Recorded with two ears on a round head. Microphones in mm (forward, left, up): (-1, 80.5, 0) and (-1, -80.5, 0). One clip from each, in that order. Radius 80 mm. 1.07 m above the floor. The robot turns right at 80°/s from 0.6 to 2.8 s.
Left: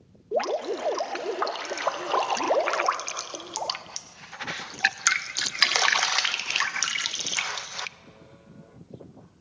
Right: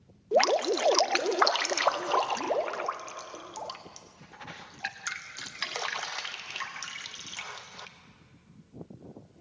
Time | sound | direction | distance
0.3 | dripping | 55° right (ahead or behind) | 0.5 m